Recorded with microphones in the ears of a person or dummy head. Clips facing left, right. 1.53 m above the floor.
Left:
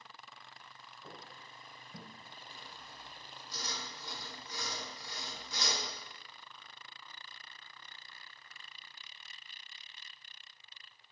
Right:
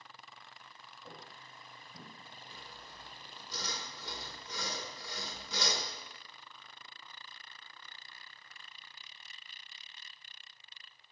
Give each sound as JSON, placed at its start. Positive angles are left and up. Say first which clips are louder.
{"t": 1.0, "sound": "footsteps", "louder": "even", "side_deg": 50, "distance_m": 2.5}
{"t": 2.5, "sound": "sawing", "louder": "right 1 dB", "side_deg": -60, "distance_m": 1.1}